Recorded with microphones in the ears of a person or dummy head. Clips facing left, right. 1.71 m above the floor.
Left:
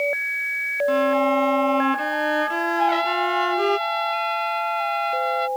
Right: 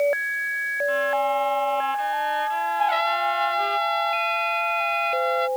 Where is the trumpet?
Centre (ahead or behind).